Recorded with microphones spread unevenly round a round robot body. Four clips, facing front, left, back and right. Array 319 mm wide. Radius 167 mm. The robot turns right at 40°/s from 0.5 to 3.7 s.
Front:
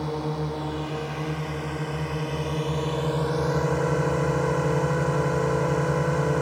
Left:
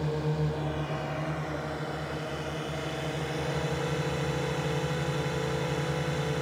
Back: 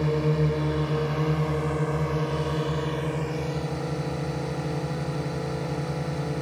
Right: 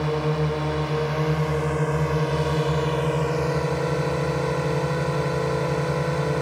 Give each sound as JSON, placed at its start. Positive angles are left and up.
{"t": 0.0, "sound": "a drone", "azimuth_deg": -165}